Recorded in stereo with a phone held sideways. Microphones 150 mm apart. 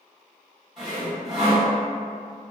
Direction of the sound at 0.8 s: 5° right (ahead or behind).